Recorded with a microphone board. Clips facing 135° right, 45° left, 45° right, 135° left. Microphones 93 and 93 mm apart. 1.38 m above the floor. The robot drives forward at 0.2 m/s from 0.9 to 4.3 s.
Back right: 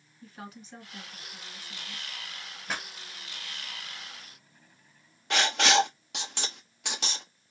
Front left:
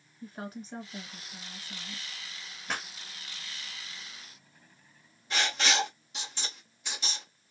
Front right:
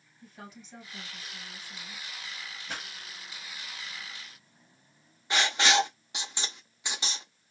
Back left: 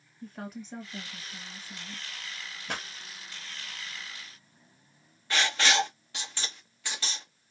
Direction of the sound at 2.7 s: 135° left.